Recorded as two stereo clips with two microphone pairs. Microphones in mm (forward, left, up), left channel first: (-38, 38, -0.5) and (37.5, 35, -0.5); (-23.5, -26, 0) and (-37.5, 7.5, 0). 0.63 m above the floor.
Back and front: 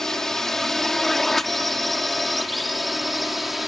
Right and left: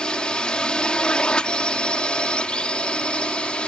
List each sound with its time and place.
0.0 s a drone: 105° right; by 3.7 s 90° right